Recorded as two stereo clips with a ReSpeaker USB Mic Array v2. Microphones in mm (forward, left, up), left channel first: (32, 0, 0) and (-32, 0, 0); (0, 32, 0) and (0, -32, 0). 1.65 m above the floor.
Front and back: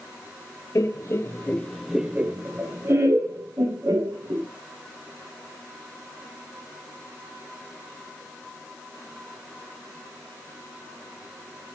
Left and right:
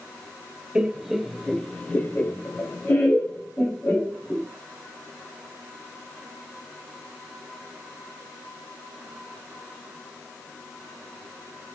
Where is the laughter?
10° right, 0.8 m; by 4.5 s 150° left, 1.8 m.